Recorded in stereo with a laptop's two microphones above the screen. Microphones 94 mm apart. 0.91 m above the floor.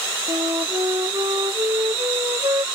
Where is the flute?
45° right (ahead or behind).